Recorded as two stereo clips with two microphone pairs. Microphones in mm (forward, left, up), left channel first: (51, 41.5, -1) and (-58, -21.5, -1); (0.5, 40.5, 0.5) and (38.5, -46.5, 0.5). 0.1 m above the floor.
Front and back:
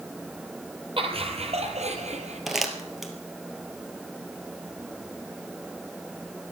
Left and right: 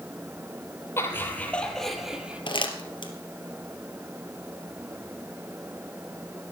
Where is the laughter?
175° left, 3.5 m; by 2.4 s 140° right, 3.5 m.